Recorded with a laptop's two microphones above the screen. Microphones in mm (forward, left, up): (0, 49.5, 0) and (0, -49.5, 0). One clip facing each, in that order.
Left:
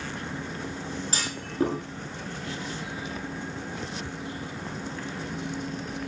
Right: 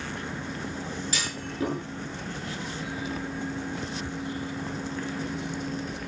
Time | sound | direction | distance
1.1 | a clunk | 40° left (ahead or behind) | 7.5 m